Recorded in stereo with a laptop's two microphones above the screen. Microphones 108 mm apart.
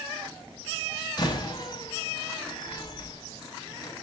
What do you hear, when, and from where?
1.2 s a door slam: 40° left (ahead or behind), 6 m